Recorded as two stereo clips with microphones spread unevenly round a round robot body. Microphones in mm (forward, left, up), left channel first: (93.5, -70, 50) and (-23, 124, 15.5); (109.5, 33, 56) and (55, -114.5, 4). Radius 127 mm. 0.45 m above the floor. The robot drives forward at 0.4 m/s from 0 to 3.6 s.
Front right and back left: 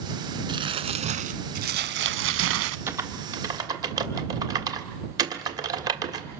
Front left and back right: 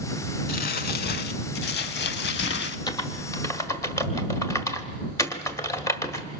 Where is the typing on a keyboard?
150° left, 1.4 m; by 6.3 s 160° left, 1.6 m.